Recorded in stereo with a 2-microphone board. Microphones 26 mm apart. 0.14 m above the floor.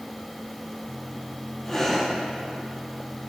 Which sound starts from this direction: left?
Breathing, at 1.6 s.